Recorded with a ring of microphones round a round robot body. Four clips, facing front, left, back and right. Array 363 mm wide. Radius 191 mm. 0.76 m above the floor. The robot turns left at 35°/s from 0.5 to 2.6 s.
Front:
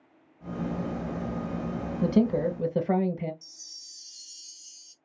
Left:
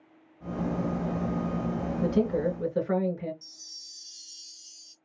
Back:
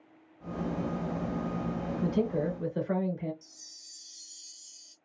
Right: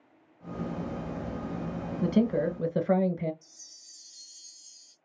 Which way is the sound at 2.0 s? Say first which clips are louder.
Right 1 dB, front 6 dB; 15° right.